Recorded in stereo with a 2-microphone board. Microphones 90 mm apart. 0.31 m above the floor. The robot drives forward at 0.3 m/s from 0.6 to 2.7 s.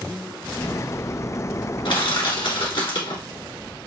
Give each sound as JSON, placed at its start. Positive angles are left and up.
{"t": 1.9, "sound": "crushing", "side_deg": 70, "distance_m": 2.0}